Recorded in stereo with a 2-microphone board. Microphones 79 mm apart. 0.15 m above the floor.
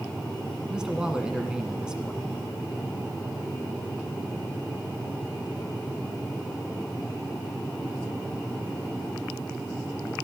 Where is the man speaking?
10° right (ahead or behind), 1.2 m.